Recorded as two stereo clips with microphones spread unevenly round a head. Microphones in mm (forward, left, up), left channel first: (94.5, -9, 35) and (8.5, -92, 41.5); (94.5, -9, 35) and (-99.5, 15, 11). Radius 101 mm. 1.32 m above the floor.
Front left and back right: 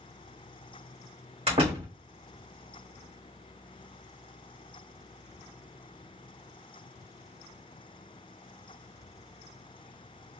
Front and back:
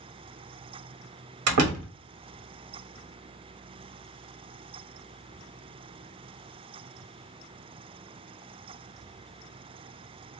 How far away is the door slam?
About 1.2 m.